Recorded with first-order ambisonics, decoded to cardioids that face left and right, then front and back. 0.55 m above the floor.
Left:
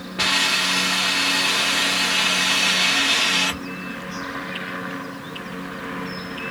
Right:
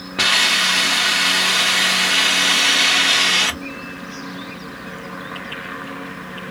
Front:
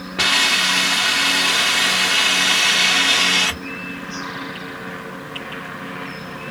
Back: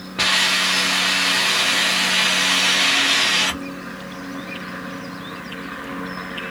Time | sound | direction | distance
0.2 | a hiss | 80° right | 0.8 m